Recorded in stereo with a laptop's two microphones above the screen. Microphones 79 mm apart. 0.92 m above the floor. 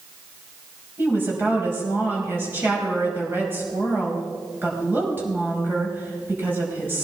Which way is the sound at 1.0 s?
25° right (ahead or behind).